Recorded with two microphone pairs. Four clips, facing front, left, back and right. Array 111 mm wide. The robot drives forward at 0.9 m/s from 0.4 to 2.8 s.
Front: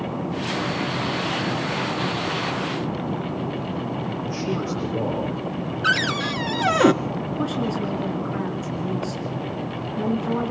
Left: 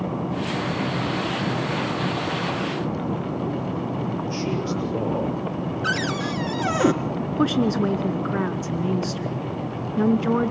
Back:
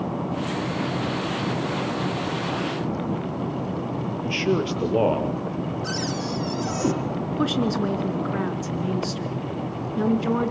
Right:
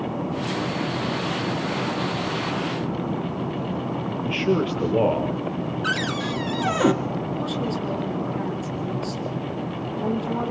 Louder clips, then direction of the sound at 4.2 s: Right 3 dB, back 5 dB; 150° right.